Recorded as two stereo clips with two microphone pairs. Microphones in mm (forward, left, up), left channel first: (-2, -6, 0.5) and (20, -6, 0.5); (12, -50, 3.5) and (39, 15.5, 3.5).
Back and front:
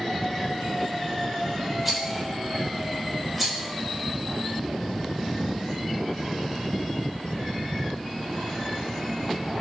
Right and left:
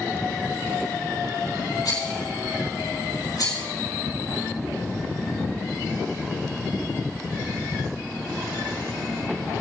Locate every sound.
1.9 s a rattle: 85° right, 4 m